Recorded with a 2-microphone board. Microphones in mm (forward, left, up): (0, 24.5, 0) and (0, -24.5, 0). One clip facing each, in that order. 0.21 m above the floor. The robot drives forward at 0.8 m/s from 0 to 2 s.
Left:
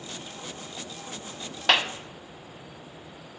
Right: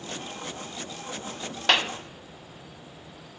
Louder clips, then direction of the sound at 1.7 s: Even; 5° left (ahead or behind).